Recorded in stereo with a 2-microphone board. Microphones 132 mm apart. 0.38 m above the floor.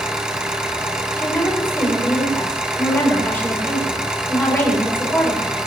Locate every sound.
0.0 s an engine running: 5° right (ahead or behind), 1.6 m
1.2 s a woman speaking: 15° left (ahead or behind), 7 m